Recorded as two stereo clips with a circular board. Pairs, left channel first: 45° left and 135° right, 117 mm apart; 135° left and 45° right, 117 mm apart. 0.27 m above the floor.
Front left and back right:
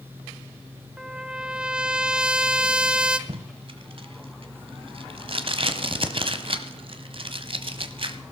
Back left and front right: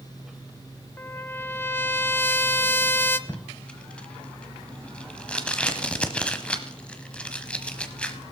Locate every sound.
1.0 s a trumpet: 160° left, 0.6 m
3.3 s tape being pulled: 145° right, 1.1 m